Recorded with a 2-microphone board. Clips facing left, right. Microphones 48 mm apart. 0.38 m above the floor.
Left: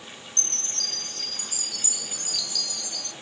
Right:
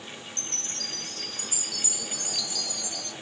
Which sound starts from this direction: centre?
A chime, at 0.4 s.